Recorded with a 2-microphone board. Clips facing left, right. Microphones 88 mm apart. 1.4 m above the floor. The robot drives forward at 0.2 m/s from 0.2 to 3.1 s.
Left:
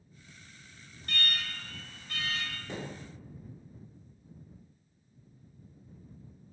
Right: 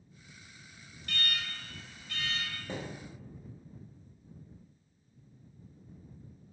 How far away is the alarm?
About 0.7 m.